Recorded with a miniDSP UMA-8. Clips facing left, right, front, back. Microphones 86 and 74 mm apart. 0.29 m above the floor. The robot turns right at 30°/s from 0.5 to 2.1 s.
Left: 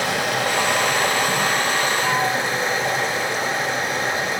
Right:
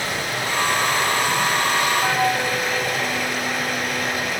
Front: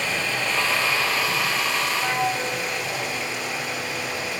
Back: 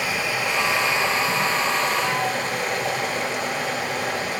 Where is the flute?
70° right, 1.1 m; by 4.3 s 65° right, 1.1 m.